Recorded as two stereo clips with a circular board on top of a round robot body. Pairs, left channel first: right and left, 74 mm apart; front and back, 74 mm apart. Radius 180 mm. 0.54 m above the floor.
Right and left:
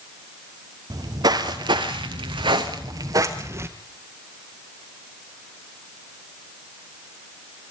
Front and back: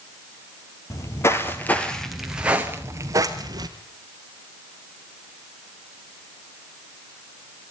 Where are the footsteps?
50° left, 1.1 m; by 3.7 s 145° left, 1.1 m.